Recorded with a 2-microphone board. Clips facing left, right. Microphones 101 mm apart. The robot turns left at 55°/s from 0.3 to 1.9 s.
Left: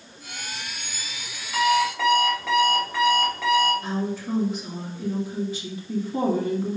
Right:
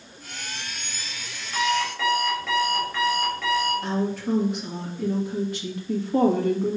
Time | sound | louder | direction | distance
1.5 | an alarm clock | left 4 dB | 10° right (ahead or behind) | 4 m
3.8 | a woman speaking | right 2 dB | 60° right (ahead or behind) | 2 m